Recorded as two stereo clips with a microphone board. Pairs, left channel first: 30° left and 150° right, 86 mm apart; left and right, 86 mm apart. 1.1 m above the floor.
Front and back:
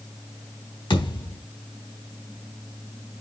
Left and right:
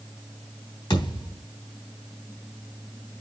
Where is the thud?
60° left, 3.5 m.